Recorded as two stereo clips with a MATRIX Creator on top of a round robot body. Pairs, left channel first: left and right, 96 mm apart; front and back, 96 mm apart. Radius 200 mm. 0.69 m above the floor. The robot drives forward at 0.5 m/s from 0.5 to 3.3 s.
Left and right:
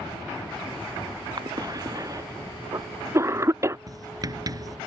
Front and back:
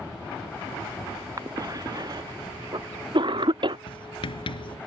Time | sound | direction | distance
1.4 | a cough | 130° right | ?
3.9 | writing | 35° right | ?